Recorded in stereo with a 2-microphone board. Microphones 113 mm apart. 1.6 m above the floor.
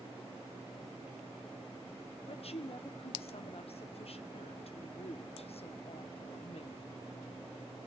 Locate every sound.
2.3 s a woman speaking: 60° left (ahead or behind), 1.2 m